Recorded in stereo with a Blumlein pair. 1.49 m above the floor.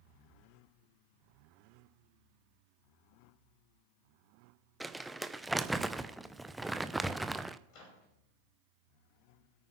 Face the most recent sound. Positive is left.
turn(degrees=40)